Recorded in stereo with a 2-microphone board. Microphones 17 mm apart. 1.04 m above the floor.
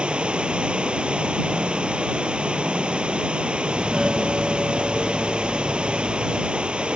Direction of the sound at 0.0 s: 85° right.